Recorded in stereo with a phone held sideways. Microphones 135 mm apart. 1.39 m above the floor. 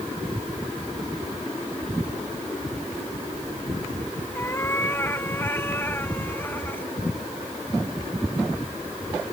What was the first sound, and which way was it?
A cat meowing, 20° left (ahead or behind).